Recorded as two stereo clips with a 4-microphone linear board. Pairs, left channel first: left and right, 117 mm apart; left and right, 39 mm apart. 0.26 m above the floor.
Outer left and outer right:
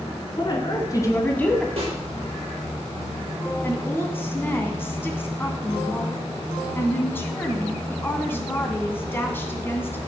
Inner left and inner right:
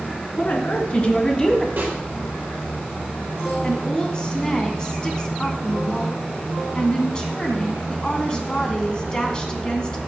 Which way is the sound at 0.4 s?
40° left (ahead or behind).